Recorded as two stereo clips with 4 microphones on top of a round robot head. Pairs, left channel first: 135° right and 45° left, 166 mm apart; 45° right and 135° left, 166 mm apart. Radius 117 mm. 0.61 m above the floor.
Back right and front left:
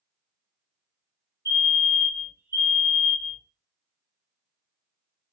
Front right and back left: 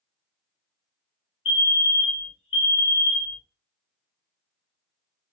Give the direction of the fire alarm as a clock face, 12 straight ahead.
3 o'clock.